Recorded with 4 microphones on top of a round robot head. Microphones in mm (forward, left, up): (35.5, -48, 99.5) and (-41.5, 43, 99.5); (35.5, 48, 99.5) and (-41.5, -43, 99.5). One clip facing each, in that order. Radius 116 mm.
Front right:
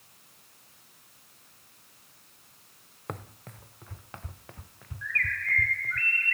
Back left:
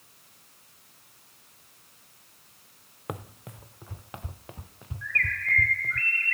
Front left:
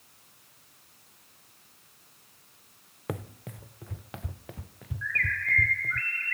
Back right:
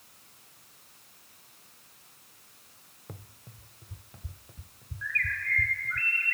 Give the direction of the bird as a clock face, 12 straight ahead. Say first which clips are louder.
Back left 1 dB, front left 2 dB; 7 o'clock.